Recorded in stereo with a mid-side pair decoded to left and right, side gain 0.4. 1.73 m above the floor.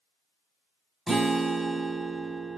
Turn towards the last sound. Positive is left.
turn(degrees=-15)